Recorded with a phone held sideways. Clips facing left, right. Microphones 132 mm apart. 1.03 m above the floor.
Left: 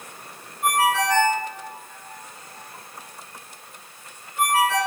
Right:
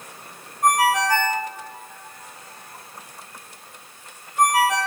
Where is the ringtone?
40° right (ahead or behind), 3 m.